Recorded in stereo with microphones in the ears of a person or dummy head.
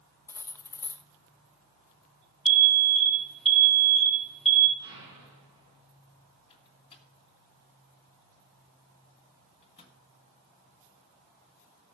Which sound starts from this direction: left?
A microwave, at 6.5 s.